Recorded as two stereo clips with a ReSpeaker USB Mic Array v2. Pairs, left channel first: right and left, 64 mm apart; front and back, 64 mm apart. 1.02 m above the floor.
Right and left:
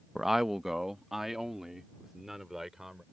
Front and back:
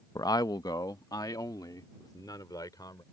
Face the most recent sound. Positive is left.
turn(degrees=5)